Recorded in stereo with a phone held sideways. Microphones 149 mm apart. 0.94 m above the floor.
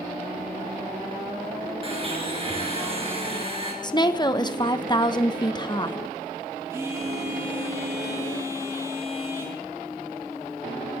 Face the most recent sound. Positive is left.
turn(degrees=-20)  # may be behind; listen again after turning